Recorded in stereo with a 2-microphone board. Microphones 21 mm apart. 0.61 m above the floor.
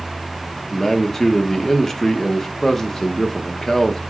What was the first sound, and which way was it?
A man speaking, 15° left (ahead or behind).